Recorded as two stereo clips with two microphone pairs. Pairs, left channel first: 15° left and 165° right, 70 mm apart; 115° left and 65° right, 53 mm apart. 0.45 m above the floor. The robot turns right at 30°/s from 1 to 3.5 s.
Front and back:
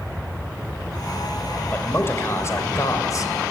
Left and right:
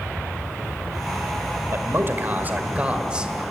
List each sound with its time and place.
1.7 s a man speaking: 40° right, 2.0 m; by 3.3 s 5° left, 2.0 m